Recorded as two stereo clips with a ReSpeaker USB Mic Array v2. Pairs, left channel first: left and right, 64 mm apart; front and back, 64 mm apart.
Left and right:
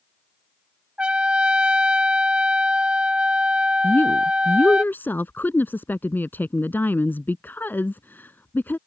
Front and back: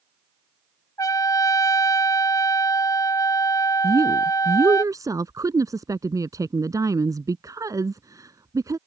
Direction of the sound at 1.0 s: 15° right.